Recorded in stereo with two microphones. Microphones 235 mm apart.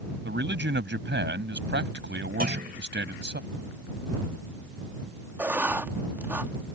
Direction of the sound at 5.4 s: 10° right (ahead or behind).